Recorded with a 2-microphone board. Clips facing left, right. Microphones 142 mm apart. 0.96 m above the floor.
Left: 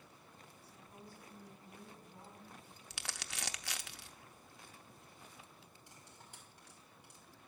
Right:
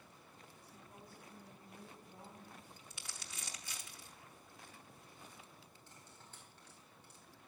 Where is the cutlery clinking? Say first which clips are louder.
Left 1 dB; 10° left (ahead or behind), 4 m.